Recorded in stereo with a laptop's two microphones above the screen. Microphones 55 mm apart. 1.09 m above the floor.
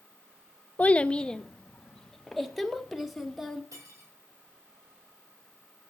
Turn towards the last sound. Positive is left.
turn(degrees=-85)